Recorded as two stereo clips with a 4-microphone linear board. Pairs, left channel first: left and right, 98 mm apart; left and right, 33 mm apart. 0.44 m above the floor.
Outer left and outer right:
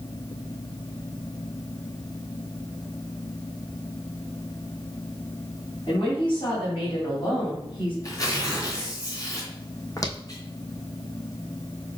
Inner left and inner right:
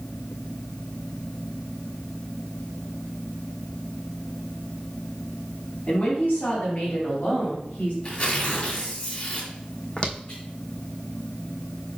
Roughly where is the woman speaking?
Left.